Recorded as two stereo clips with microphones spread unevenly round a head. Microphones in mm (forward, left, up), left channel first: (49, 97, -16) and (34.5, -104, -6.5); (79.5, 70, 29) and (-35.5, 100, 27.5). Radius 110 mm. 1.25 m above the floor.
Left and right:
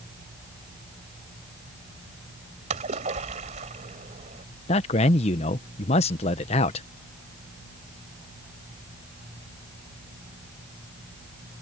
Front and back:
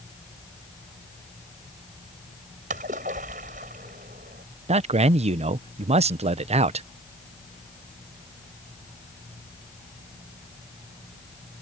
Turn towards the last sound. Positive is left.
turn(degrees=145)